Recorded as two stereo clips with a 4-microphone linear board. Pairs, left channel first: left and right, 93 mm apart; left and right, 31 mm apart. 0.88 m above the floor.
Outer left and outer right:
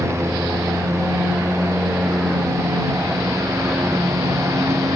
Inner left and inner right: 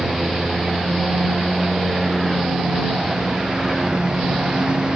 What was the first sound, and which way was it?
A lawn mower, 30° right (ahead or behind).